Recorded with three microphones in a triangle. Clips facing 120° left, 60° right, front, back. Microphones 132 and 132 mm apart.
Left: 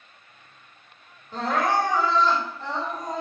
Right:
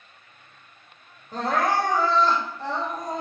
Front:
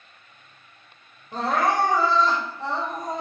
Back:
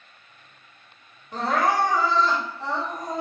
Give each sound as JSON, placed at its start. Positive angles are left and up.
{"t": 1.3, "sound": "crying", "azimuth_deg": -50, "distance_m": 1.5}